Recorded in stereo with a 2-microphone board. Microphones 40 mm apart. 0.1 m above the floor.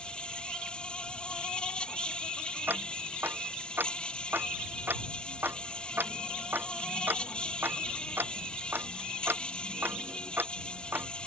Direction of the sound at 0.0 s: 25° left (ahead or behind).